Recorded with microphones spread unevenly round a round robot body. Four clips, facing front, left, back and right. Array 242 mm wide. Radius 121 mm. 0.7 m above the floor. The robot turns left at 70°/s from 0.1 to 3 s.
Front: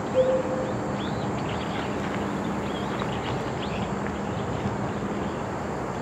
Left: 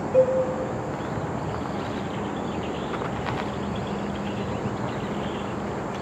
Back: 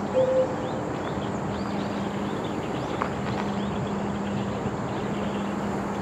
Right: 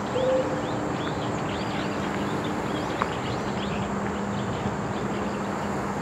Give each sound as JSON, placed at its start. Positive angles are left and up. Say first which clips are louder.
{"t": 0.1, "sound": "a cowbell", "louder": "left 5 dB, front 1 dB", "azimuth_deg": 85, "distance_m": 1.0}